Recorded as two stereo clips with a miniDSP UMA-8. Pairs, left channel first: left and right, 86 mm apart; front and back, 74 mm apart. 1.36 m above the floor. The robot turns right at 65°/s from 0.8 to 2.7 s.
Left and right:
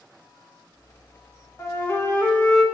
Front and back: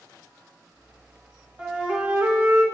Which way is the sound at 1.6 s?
100° left.